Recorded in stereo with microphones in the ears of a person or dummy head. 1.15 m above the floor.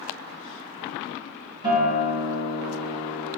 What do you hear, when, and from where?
1.6 s a guitar: 30° right (ahead or behind), 6 m